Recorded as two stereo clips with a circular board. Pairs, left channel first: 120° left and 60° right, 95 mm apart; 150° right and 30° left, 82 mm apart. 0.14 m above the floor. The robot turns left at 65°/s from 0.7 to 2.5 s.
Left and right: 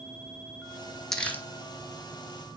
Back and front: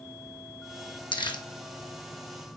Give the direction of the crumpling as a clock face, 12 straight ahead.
5 o'clock.